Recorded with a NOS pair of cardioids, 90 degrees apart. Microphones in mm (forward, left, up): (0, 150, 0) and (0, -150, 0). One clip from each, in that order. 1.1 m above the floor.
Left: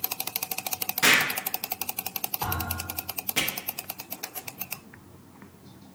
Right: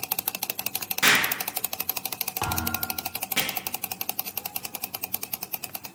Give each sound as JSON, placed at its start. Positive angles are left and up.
{"t": 1.0, "sound": "an explosion", "azimuth_deg": -5, "distance_m": 0.8}
{"t": 2.4, "sound": "a thud", "azimuth_deg": -35, "distance_m": 1.3}